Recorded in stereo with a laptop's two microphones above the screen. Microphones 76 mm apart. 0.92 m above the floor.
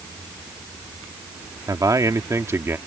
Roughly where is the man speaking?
Right.